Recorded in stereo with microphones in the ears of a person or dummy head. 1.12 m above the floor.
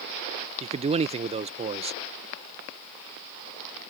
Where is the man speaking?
25° right (ahead or behind).